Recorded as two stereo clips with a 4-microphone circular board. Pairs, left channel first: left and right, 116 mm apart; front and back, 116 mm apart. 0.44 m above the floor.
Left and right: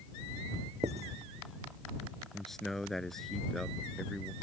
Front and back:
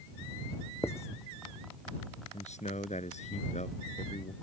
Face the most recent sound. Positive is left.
turn(degrees=5)